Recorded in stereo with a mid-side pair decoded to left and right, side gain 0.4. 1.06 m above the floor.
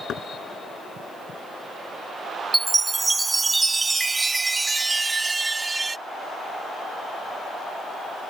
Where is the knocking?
70° left.